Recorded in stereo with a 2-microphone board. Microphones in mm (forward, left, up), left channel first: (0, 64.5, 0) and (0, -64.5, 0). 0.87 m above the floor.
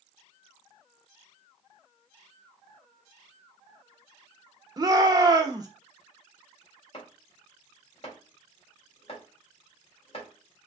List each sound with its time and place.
4.8 s a shout: 30° right (ahead or behind), 0.9 m
6.9 s chopping: 45° left (ahead or behind), 1.8 m